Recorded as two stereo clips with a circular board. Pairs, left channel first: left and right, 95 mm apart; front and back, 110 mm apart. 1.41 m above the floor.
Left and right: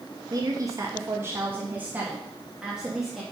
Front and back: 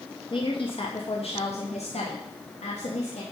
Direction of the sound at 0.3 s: 45° right.